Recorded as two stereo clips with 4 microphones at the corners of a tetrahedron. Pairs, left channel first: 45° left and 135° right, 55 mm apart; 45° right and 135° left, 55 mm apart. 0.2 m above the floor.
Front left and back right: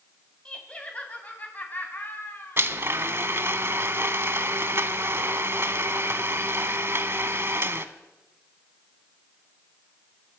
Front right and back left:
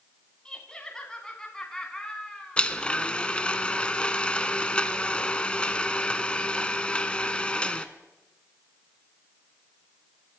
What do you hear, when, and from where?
0.5 s laughter: 5° left, 1.8 m; by 2.7 s 30° left, 2.5 m
2.6 s a blender: 110° right, 0.7 m